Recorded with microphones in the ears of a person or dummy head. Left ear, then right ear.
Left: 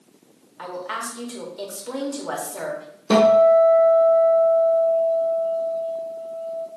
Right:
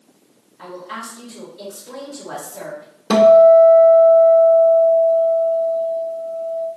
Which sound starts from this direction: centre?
A guitar, at 3.1 s.